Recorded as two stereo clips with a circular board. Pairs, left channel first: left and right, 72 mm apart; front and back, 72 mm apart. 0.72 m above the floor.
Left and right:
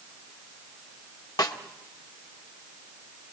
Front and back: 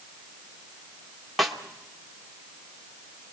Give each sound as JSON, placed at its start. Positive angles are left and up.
{"t": 1.4, "sound": "a snare drum", "azimuth_deg": 90, "distance_m": 1.6}